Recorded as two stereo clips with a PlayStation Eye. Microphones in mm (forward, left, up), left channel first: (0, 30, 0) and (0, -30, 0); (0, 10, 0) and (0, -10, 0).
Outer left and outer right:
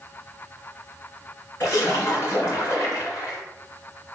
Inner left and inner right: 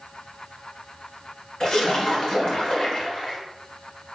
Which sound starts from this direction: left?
A splash, at 1.6 s.